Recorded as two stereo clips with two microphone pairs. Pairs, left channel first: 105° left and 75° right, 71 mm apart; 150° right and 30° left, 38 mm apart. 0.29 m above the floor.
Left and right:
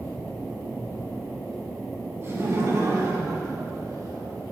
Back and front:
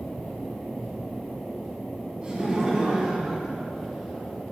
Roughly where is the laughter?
Ahead right.